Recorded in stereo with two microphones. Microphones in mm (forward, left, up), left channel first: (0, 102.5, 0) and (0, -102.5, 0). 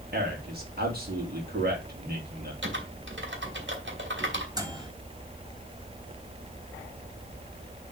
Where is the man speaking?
50° right (ahead or behind), 3.5 m.